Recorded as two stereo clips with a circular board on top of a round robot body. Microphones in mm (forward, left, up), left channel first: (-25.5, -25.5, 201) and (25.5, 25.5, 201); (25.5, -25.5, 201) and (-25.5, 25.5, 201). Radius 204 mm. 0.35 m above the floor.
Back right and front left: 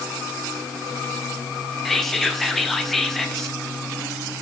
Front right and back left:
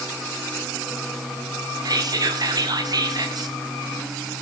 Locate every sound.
1.9 s whispering: 140° left, 1.4 m